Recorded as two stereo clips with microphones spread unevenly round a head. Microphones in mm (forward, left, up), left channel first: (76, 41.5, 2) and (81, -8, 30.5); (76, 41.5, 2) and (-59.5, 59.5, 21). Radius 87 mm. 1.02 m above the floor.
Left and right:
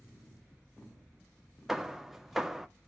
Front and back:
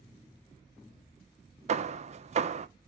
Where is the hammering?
155° left, 0.6 m.